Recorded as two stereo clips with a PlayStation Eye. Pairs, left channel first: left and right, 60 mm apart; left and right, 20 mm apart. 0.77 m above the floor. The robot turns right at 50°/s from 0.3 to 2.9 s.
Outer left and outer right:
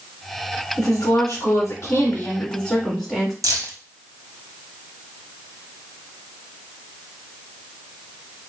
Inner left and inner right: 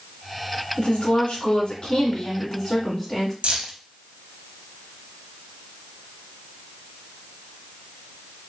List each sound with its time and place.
0.8 s a woman speaking: 65° left, 2.5 m; by 3.3 s 175° left, 2.5 m
3.4 s keys jangling: 60° right (ahead or behind), 0.7 m